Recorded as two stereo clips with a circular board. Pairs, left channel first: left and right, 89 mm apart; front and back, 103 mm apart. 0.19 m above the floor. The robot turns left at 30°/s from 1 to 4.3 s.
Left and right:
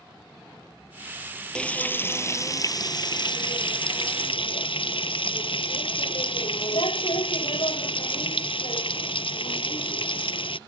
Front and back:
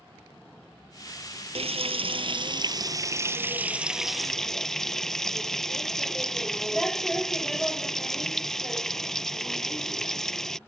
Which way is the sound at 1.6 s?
170° left.